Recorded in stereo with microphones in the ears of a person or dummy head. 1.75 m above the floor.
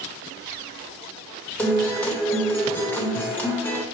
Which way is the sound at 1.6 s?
5° left (ahead or behind).